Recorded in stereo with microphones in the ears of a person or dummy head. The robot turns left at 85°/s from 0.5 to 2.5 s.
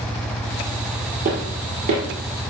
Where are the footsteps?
50° right (ahead or behind), 2 m; by 2.0 s 40° right (ahead or behind), 2 m.